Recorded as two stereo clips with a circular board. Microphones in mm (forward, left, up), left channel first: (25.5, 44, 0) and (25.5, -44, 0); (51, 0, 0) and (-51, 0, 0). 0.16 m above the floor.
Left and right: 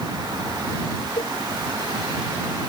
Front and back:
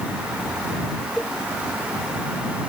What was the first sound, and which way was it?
A cowbell, 90° left.